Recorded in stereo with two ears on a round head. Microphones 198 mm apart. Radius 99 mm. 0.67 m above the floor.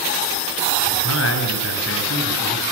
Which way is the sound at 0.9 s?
65° left (ahead or behind).